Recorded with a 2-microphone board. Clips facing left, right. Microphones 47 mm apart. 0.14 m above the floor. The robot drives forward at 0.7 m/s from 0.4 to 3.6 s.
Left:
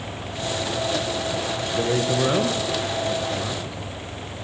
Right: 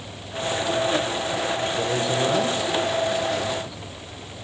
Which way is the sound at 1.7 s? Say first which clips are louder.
Left 1 dB; 30° left (ahead or behind).